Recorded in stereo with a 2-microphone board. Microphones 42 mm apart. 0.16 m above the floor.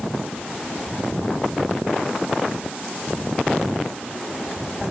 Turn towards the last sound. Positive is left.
No sound to turn to.